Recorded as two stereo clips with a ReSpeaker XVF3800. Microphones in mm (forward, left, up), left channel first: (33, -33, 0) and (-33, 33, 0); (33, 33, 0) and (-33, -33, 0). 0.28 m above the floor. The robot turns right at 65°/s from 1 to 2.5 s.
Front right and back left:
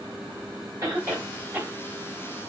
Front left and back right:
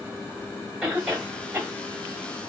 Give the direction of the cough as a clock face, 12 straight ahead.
7 o'clock.